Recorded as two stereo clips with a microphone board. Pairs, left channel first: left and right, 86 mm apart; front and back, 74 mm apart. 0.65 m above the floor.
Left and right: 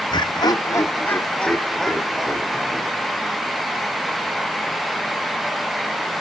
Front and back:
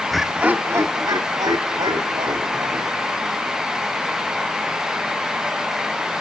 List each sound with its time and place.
0.1 s laughter: 90° left, 1.2 m; by 3.5 s 170° right, 4 m